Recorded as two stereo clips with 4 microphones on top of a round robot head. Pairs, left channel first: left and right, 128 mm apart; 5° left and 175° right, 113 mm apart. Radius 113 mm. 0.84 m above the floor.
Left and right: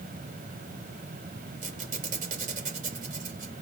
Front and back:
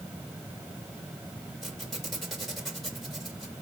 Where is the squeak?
85° right, 3 m.